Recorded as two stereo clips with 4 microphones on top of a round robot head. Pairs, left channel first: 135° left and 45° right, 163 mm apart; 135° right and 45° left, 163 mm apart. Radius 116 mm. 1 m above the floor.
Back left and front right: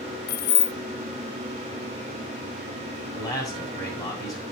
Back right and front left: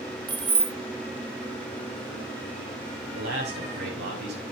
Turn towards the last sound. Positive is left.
turn(degrees=65)